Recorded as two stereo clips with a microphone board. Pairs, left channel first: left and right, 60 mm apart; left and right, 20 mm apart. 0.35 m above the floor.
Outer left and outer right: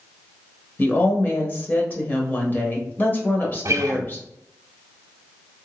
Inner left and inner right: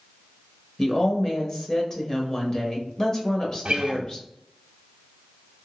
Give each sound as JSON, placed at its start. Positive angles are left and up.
{"t": 0.8, "sound": "a woman speaking", "side_deg": 35, "distance_m": 1.0}
{"t": 3.6, "sound": "a guitar", "side_deg": -70, "distance_m": 0.6}